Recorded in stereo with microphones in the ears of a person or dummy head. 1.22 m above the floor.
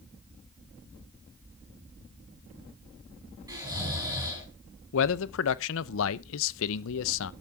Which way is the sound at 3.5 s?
20° right (ahead or behind).